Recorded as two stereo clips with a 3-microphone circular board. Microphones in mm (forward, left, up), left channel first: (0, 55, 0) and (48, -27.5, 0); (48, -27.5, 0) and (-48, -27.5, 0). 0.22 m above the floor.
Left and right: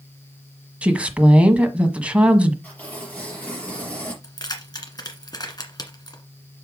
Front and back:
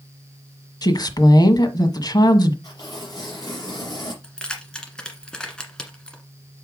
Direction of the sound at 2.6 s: 45° left.